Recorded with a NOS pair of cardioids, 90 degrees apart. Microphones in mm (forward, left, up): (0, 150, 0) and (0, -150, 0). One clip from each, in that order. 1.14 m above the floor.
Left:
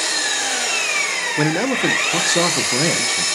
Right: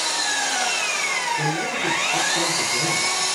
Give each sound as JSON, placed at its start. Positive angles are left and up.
{"t": 0.0, "sound": "an engine running", "azimuth_deg": 40, "distance_m": 2.5}
{"t": 1.4, "sound": "a man speaking", "azimuth_deg": 65, "distance_m": 0.5}